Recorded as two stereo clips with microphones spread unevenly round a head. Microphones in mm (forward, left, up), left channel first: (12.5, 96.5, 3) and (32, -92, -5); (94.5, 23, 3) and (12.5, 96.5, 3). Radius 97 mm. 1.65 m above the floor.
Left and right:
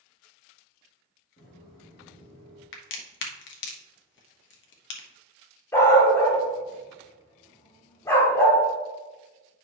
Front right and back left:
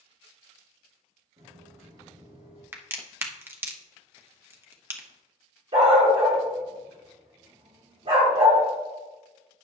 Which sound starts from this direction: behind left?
Footsteps, at 1.4 s.